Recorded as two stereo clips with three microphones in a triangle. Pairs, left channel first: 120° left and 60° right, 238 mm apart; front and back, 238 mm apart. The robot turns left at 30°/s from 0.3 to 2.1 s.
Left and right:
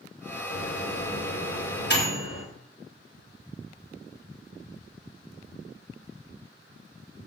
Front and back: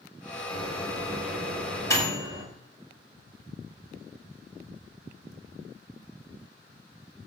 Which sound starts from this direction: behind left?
A microwave, at 0.5 s.